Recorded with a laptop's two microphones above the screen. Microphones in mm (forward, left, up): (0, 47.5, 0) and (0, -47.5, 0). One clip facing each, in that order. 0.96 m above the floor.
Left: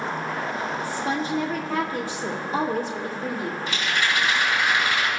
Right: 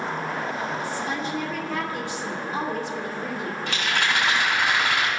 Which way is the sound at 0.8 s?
35° left (ahead or behind).